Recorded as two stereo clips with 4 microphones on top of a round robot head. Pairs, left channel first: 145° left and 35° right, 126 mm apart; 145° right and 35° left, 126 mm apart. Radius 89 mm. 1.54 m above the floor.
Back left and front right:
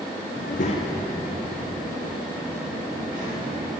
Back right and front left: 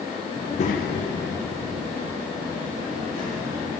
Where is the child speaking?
145° left, 0.6 m; by 3.7 s 90° right, 3.5 m.